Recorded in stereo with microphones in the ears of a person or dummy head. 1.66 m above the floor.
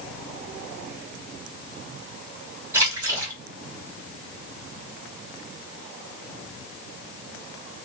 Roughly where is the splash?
Centre.